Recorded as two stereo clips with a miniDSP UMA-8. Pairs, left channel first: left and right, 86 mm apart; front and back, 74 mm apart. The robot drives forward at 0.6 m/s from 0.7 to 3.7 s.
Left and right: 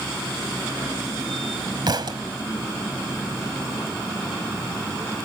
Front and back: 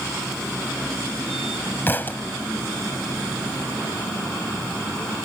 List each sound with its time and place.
1.9 s a thud: 60° right; by 2.2 s 65° right